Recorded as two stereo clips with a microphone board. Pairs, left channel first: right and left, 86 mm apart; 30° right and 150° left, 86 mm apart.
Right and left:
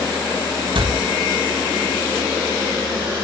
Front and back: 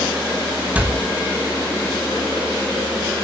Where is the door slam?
75° left, 3.5 m.